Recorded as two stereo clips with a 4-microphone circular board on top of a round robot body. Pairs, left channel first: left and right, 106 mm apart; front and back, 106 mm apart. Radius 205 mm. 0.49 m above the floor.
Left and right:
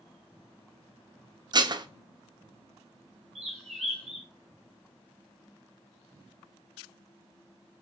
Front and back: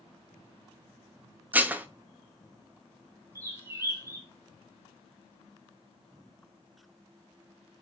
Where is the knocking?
I don't hear knocking.